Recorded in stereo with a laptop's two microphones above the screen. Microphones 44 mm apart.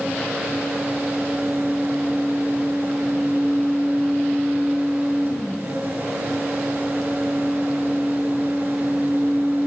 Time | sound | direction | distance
0.0 | a fan | 50° right (ahead or behind) | 4 m